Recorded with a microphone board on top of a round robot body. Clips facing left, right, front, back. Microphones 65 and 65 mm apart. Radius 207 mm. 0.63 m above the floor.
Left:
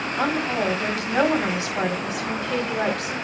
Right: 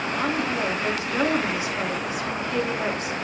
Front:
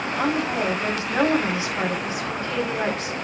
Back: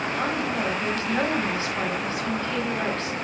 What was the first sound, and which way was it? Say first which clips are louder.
A woman speaking: left 3 dB, front 5 dB; 75° left.